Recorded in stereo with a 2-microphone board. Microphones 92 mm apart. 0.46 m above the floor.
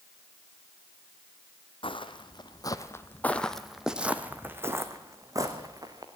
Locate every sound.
1.8 s footsteps: 65° left (ahead or behind), 1.3 m; by 6.1 s 40° right (ahead or behind), 2.5 m